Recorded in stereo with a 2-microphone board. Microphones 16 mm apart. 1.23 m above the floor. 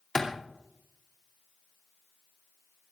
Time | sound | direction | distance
0.1 | a clap | 30° left (ahead or behind) | 3 m